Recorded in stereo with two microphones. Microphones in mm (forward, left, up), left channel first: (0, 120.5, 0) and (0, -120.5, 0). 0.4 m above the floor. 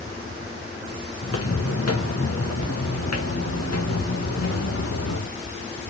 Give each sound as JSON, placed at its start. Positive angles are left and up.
{"t": 1.2, "sound": "footsteps", "side_deg": 70, "distance_m": 2.0}